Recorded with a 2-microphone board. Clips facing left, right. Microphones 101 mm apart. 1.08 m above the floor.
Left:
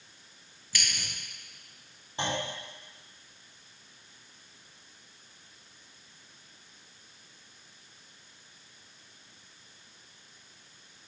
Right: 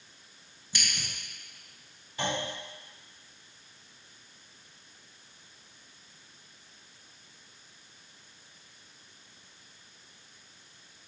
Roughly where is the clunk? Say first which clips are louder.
Even; left.